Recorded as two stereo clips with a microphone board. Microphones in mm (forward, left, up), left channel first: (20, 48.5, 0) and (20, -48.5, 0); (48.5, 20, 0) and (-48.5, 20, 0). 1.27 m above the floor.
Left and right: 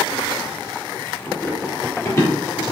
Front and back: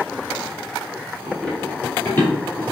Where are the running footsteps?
80° left, 1.3 m; by 2.6 s 45° left, 1.6 m.